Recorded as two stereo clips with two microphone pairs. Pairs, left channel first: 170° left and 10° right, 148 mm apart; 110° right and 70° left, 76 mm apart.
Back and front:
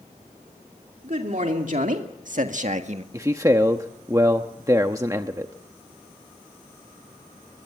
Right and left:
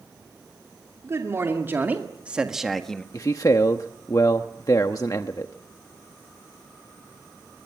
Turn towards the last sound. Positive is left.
turn(degrees=-75)